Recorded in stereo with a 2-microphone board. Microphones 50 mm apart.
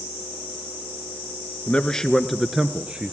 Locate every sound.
1.7 s a man speaking: 25° left (ahead or behind), 1.1 m; by 3.1 s 25° right (ahead or behind), 1.3 m